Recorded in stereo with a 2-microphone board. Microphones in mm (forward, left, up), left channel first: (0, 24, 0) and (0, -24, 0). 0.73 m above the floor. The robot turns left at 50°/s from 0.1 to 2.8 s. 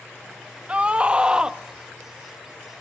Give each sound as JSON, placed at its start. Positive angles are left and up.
{"t": 0.7, "sound": "a scream", "side_deg": -25, "distance_m": 0.8}